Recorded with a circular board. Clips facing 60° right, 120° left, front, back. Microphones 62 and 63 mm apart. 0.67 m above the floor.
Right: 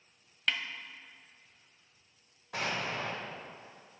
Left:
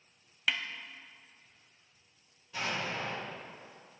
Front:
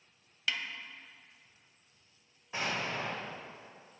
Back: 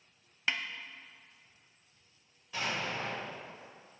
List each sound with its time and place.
0.5 s a snare drum: 160° right, 0.5 m
2.5 s an explosion: 60° right, 2 m